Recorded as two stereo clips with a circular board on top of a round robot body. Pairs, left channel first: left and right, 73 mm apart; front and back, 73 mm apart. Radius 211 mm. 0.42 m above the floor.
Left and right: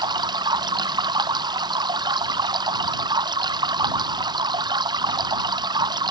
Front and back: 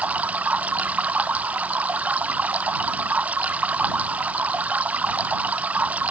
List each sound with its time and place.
0.0 s running water: 110° right